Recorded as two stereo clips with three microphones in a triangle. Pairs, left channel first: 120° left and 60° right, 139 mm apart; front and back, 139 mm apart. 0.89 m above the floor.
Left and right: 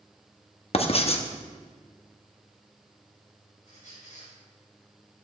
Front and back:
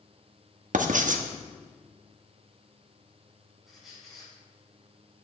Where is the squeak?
90° left, 2.5 m.